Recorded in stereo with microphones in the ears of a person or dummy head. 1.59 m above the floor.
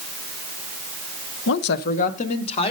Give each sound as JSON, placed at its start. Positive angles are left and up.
{"t": 1.5, "sound": "a woman speaking", "side_deg": 70, "distance_m": 0.8}